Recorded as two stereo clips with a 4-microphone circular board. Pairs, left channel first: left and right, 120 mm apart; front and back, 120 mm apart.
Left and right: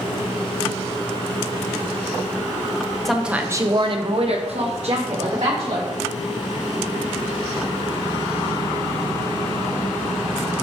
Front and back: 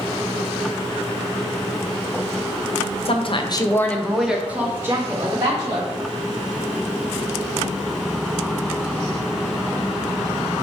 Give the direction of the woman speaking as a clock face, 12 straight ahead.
12 o'clock.